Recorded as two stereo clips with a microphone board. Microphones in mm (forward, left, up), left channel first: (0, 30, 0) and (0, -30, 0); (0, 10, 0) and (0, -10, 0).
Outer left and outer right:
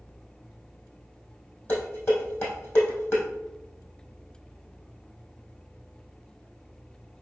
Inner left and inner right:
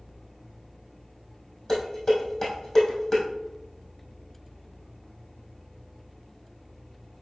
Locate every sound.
1.7 s dishes clattering: 35° left (ahead or behind), 3 m